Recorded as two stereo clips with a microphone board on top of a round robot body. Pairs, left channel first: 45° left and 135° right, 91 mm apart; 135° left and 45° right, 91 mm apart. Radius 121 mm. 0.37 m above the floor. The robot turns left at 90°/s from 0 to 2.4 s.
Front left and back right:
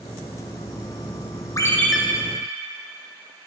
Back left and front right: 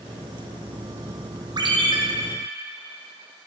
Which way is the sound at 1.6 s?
10° right.